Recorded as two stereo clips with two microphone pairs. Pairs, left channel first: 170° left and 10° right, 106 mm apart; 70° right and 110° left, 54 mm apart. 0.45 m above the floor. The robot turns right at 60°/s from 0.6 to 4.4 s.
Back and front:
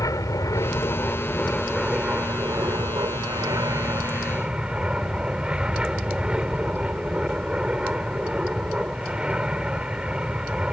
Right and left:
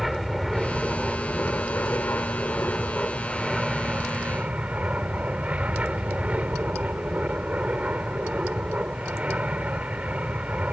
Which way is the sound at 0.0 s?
165° right.